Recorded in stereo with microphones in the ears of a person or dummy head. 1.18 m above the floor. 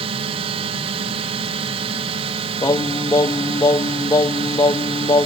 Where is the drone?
40° right (ahead or behind).